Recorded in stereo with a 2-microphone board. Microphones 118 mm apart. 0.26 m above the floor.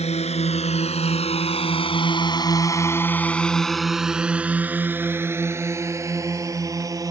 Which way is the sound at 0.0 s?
65° left (ahead or behind).